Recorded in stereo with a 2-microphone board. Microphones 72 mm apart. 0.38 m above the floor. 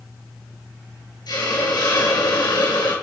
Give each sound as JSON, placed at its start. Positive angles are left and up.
{"t": 1.3, "sound": "a hiss", "side_deg": 75, "distance_m": 5.0}